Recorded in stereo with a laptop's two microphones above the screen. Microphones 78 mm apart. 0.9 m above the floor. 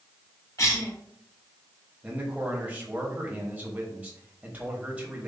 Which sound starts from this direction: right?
A man speaking, at 2.0 s.